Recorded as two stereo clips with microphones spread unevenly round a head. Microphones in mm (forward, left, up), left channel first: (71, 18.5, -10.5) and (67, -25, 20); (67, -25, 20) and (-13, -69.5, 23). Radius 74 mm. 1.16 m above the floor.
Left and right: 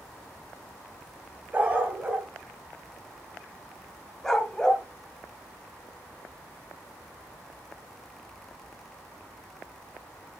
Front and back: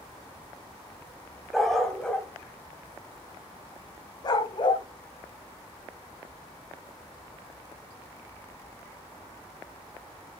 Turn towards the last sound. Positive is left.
turn(degrees=0)